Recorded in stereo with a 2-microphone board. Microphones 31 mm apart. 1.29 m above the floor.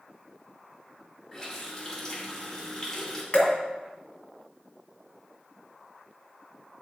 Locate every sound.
1.3 s a running tap: 20° left (ahead or behind), 2.5 m
3.3 s dripping: 40° left (ahead or behind), 1.7 m